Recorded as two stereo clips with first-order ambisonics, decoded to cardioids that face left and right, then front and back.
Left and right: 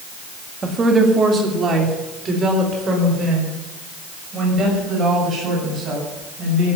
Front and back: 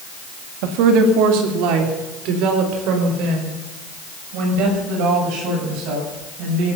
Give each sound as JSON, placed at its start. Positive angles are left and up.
{"t": 0.6, "sound": "a woman speaking", "azimuth_deg": -165, "distance_m": 1.9}